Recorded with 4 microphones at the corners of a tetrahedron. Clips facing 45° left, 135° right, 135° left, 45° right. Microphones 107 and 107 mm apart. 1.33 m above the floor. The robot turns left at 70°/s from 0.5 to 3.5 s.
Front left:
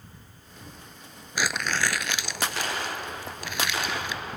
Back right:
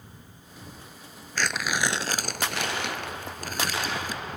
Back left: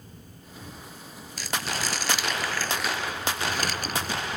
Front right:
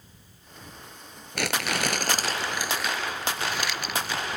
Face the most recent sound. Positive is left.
turn(degrees=180)